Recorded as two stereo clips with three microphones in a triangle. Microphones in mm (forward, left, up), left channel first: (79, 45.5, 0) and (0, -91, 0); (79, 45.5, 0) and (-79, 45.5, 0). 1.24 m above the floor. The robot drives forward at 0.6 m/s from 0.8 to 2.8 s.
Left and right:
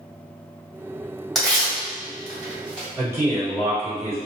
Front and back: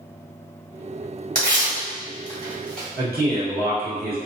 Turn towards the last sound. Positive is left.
turn(degrees=165)